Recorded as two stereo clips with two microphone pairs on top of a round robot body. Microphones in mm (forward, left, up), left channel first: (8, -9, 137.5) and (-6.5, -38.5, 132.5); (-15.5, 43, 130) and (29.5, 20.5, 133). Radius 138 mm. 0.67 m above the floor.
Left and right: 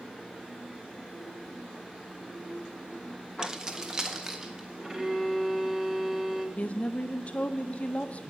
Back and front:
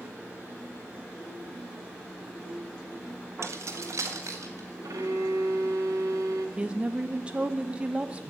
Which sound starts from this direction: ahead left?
A woman speaking, at 6.6 s.